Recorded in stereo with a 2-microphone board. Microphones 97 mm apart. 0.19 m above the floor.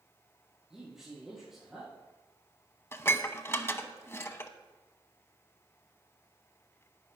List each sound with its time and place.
0.7 s a man speaking: 5° right (ahead or behind), 5 m
2.9 s dishes clattering: 25° left (ahead or behind), 0.7 m